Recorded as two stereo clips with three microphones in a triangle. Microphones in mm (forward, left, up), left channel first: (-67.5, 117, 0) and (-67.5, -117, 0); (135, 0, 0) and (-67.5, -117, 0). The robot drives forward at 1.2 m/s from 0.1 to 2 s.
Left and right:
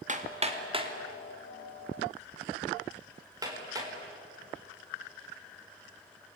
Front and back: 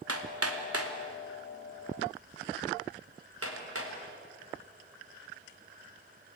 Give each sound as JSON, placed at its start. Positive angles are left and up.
{"t": 0.1, "sound": "hammering", "azimuth_deg": -150, "distance_m": 2.0}